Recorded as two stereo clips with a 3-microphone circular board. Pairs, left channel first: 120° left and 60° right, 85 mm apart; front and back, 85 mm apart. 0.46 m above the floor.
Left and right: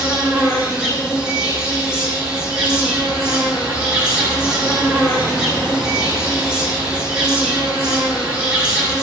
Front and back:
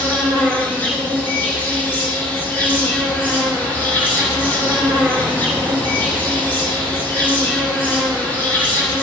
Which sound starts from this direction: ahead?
An insect, at 0.0 s.